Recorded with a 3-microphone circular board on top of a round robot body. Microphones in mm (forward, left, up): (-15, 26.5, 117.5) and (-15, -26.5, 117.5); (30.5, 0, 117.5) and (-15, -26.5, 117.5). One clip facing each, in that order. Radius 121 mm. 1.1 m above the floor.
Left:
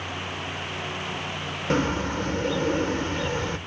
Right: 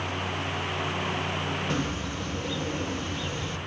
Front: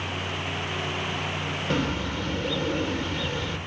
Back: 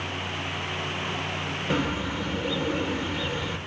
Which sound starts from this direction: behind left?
A bird, at 1.7 s.